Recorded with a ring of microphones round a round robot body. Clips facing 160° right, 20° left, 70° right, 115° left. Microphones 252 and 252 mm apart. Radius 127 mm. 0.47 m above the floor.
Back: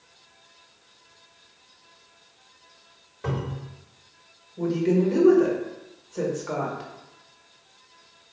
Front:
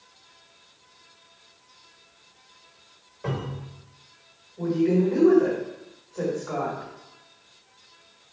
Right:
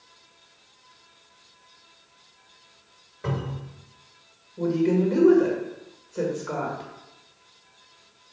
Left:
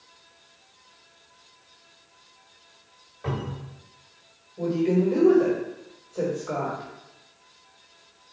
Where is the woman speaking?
130° right, 1.7 m.